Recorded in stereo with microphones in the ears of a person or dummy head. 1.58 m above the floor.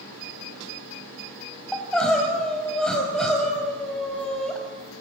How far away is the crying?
About 4.5 m.